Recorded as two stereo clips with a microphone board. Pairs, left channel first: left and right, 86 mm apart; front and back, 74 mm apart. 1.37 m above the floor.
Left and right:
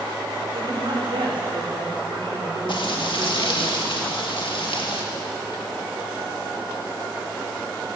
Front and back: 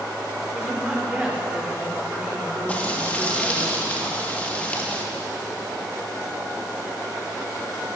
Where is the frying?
70° left, 1.6 m.